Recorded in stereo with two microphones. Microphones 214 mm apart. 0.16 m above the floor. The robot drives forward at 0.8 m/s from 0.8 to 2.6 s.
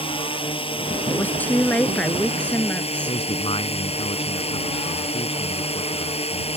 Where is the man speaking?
25° left (ahead or behind).